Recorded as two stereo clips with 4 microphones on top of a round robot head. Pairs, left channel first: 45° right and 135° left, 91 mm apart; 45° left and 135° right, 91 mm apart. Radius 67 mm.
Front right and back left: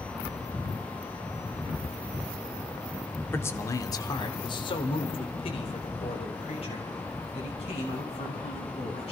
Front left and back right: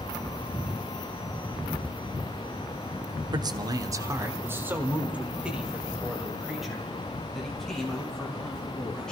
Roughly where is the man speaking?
Right.